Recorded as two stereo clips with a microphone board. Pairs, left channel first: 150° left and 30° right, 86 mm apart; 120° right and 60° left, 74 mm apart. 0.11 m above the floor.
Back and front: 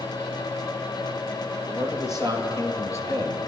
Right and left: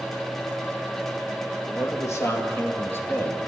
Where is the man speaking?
155° right, 3 m; by 3.4 s straight behind, 1.9 m.